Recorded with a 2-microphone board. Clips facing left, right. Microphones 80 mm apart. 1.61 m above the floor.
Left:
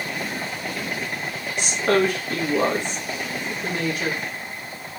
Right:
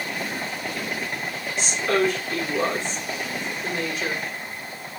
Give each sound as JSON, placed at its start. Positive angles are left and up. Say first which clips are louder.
{"t": 1.6, "sound": "a woman speaking", "louder": "left 2 dB", "side_deg": 55, "distance_m": 1.1}